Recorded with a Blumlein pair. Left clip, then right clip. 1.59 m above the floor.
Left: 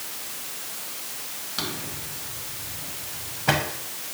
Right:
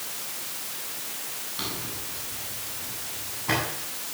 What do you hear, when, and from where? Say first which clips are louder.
1.6 s a drawer: left 3 dB; 45° left, 5.5 m